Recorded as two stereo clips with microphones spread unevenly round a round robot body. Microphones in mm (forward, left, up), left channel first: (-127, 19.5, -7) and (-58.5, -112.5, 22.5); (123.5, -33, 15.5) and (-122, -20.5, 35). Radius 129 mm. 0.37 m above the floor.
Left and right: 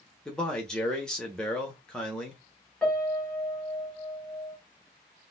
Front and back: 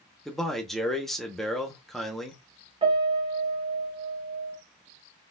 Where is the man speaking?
75° left, 0.9 m.